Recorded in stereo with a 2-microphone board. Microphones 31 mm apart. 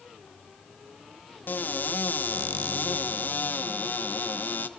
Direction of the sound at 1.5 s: 75° left (ahead or behind).